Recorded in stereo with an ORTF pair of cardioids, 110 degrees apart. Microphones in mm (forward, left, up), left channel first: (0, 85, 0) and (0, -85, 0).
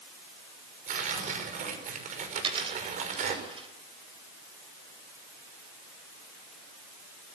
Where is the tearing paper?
50° right, 5.5 m.